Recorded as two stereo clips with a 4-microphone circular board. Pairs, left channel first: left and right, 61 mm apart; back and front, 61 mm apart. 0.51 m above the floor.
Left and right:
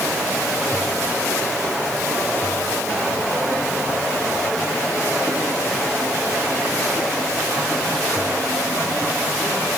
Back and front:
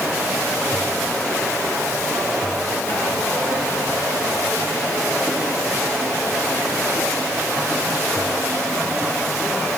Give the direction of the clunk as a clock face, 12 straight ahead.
I don't hear a clunk.